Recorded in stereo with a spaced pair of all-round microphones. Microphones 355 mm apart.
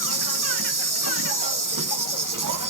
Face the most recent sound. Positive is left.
turn(degrees=-60)  # may be behind; listen again after turning